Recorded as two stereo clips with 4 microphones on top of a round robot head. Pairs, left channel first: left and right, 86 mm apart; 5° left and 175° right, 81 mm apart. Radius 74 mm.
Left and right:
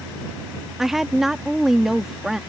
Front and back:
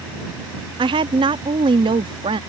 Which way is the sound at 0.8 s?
175° right.